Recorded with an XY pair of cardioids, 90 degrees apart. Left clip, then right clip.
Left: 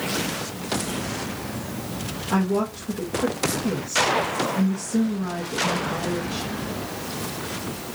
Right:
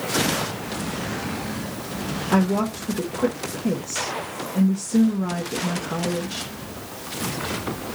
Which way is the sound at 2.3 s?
40° right.